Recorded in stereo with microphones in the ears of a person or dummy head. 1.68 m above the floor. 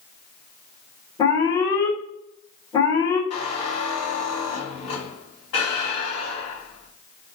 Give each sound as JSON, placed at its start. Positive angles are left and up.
{"t": 1.2, "sound": "an alarm", "side_deg": 20, "distance_m": 1.4}
{"t": 3.3, "sound": "a squeak", "side_deg": 45, "distance_m": 1.8}